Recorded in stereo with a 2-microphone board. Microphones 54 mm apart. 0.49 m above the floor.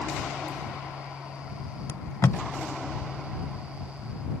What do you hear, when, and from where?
1.9 s tape being pulled: 60° left (ahead or behind)